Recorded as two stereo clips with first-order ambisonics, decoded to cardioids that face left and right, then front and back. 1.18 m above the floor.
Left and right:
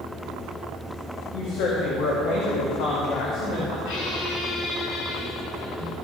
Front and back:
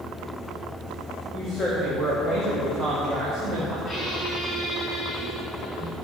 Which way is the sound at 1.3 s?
85° left.